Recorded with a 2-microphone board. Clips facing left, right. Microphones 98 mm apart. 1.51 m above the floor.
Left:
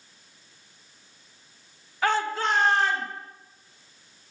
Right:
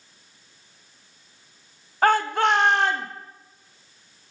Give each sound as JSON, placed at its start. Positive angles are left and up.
{"t": 2.0, "sound": "a shout", "side_deg": -45, "distance_m": 0.8}